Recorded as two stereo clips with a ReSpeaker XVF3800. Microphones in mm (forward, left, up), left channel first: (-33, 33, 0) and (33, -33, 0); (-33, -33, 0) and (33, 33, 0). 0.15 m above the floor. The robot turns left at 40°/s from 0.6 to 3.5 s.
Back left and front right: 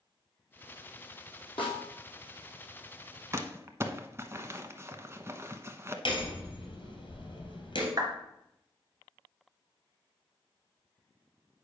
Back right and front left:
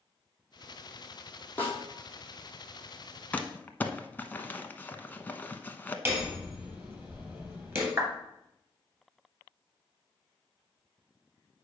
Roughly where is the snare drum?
Behind.